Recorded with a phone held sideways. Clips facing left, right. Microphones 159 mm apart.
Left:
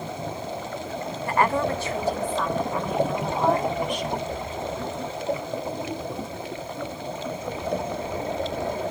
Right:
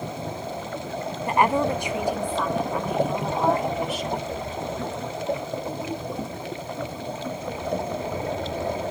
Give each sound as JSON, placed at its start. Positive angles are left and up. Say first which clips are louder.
{"t": 1.3, "sound": "a woman speaking", "louder": "right 2 dB", "side_deg": -20, "distance_m": 0.6}